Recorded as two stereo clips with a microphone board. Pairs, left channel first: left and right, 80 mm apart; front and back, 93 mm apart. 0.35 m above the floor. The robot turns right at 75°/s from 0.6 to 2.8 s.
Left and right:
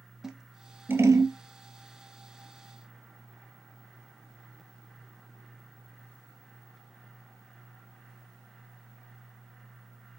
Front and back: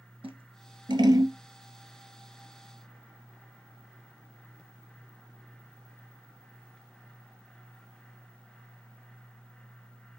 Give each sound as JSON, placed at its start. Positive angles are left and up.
{"t": 0.2, "sound": "scissors", "azimuth_deg": -175, "distance_m": 1.4}